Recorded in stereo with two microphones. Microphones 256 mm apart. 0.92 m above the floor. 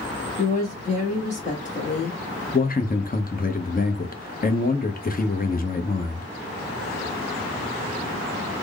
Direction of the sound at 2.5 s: 35° left (ahead or behind).